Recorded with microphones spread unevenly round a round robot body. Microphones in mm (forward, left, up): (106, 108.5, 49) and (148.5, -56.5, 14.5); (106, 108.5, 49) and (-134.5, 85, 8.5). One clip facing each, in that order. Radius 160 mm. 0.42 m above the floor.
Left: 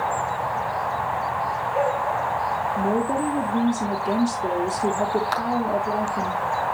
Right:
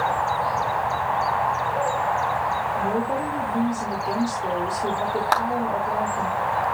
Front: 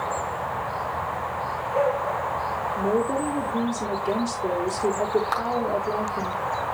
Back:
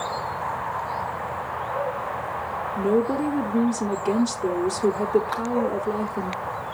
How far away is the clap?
About 2.5 m.